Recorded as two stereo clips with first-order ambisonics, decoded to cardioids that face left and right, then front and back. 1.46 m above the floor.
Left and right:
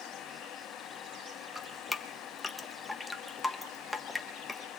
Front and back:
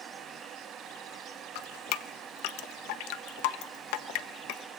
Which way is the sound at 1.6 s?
10° left.